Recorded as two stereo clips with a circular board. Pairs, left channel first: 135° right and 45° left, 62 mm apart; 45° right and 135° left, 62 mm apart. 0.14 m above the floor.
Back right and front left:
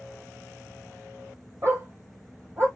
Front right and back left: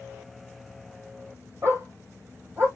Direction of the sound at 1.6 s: 90° left.